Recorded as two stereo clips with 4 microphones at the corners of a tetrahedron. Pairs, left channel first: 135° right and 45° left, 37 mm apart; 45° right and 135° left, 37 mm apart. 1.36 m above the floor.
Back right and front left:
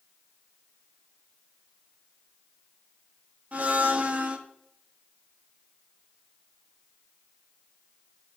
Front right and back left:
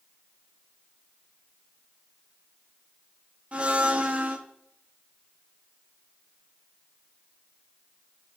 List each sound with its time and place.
3.5 s a blender: 90° left, 1.1 m